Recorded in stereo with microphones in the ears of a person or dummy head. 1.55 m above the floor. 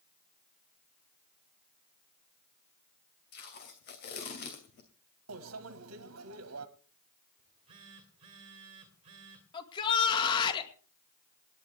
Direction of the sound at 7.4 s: 25° right (ahead or behind).